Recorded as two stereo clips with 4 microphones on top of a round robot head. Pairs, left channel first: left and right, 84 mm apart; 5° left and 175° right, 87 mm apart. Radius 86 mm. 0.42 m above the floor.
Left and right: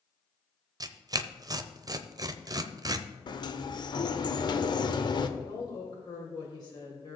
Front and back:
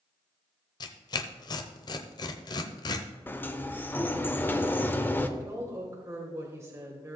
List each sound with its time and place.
0.8 s tearing paper: 40° right, 0.7 m
3.3 s a sliding door: 70° left, 0.9 m
5.4 s a woman speaking: 130° left, 1.8 m